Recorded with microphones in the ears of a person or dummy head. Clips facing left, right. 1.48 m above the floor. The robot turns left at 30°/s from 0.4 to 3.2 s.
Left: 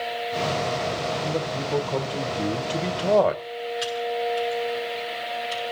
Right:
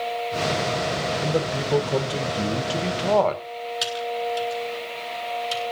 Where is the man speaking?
130° right, 1.5 m; by 3.4 s 175° left, 1.5 m.